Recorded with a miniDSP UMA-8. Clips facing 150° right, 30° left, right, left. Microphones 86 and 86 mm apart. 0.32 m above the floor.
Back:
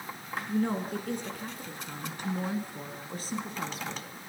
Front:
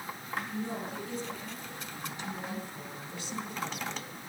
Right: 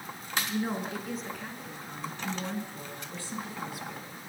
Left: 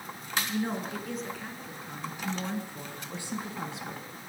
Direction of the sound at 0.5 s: 175° right.